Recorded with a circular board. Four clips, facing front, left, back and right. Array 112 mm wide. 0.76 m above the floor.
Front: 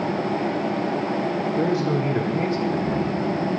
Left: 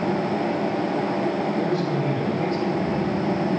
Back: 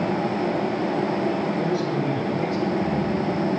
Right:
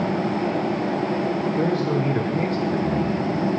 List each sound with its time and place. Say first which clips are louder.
1.6 s a man speaking: right 2 dB, front 2 dB; 40° right, 2 m; by 3.2 s 55° right, 3.5 m